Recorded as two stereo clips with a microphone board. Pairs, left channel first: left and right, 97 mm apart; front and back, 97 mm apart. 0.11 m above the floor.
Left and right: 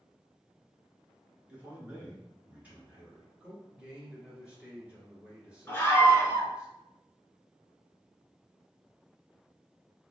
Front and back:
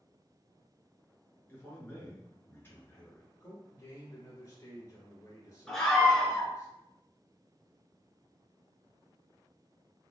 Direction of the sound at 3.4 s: 20° right.